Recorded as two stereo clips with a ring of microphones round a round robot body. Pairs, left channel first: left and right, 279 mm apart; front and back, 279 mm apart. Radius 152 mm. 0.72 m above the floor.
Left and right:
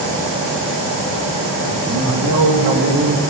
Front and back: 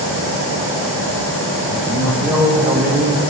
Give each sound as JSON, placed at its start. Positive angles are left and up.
{"t": 1.6, "sound": "a man speaking", "azimuth_deg": -85, "distance_m": 3.0}